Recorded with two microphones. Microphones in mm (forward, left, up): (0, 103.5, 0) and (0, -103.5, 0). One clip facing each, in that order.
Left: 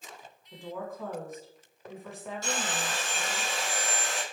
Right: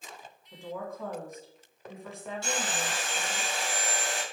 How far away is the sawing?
About 2 m.